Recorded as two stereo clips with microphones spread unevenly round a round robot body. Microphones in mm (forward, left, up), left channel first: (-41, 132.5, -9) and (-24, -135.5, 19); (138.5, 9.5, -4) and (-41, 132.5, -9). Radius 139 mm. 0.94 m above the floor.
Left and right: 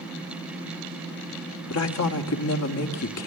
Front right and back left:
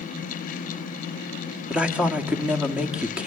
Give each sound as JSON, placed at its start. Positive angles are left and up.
{"t": 1.7, "sound": "a man speaking", "azimuth_deg": 60, "distance_m": 2.5}